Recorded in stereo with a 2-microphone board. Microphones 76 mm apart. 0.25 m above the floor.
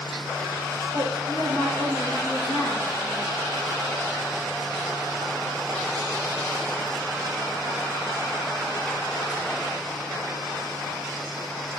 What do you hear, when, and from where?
0.9 s a woman speaking: 65° left (ahead or behind), 3.5 m